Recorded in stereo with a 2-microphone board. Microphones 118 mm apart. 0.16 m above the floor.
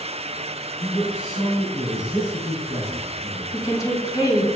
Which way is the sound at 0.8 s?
70° left (ahead or behind).